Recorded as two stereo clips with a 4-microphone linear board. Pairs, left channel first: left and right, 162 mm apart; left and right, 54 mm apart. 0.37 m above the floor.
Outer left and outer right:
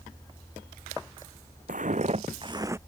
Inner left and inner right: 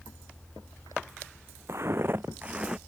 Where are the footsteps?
55° right (ahead or behind); by 2.8 s 15° right (ahead or behind).